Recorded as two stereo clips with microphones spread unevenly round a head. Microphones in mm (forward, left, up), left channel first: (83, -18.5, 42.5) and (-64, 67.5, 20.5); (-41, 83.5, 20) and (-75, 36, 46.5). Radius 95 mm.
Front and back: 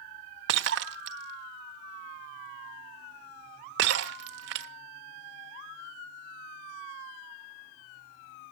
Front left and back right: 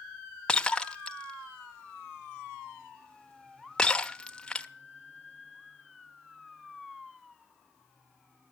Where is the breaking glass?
150° left, 1.1 m.